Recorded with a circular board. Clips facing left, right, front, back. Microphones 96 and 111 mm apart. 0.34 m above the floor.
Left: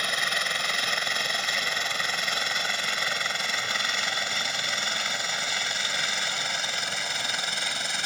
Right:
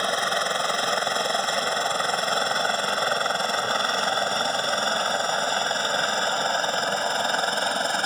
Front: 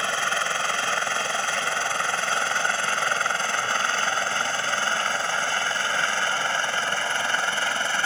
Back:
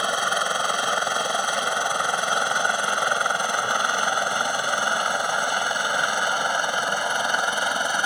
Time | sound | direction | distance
0.0 | a helicopter | 115° right | ?